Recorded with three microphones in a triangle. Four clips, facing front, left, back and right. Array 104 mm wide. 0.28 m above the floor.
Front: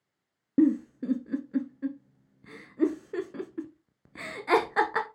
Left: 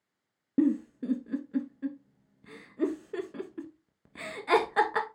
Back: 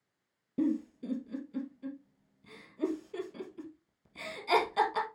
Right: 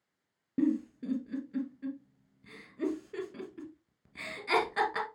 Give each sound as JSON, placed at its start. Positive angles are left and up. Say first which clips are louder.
{"t": 0.6, "sound": "a giggle", "louder": "left 3 dB, front 8 dB", "azimuth_deg": 35, "distance_m": 1.0}